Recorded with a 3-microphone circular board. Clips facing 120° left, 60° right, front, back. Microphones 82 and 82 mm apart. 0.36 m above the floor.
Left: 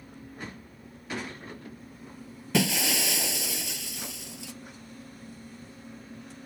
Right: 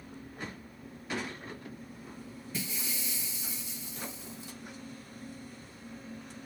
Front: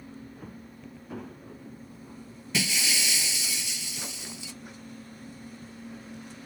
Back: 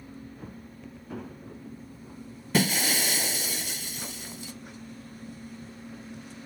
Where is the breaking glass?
135° left.